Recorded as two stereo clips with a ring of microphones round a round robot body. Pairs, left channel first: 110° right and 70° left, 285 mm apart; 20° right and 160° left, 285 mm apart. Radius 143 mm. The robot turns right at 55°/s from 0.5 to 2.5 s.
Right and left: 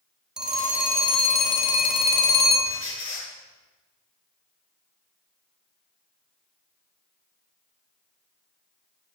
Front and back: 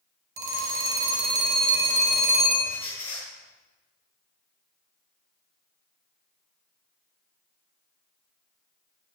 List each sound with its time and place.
0.4 s a phone ringing: 155° left, 3 m; by 2.8 s 95° right, 3 m
2.6 s a squeak: 65° right, 7 m